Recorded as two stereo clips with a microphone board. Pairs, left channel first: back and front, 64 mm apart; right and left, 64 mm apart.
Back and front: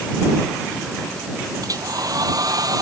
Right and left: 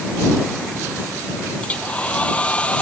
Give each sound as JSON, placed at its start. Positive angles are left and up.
{"t": 1.6, "sound": "a hair dryer", "azimuth_deg": -20}